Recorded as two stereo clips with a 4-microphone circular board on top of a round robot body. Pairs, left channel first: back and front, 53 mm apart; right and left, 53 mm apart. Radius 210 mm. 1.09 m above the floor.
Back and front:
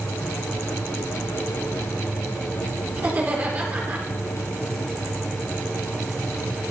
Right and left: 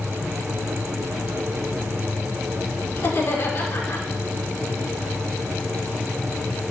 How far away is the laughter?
About 4 m.